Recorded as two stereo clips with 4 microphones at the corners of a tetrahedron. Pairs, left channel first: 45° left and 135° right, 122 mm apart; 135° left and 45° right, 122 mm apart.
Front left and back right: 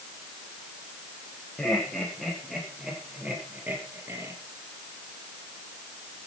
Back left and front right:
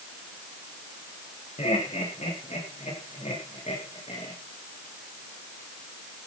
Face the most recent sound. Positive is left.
turn(degrees=160)